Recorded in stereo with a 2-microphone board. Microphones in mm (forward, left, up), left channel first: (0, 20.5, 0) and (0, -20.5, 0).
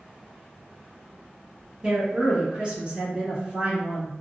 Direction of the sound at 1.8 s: 30° right (ahead or behind).